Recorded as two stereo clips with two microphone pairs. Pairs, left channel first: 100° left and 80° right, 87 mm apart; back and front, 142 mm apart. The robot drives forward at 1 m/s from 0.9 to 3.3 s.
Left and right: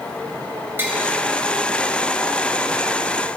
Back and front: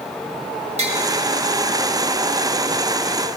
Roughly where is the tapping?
Ahead.